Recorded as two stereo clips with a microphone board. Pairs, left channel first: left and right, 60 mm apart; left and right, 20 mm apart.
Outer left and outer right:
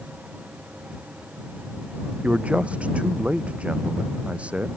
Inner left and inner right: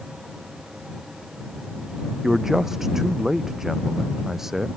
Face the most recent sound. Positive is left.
turn(degrees=-20)  # may be behind; listen again after turning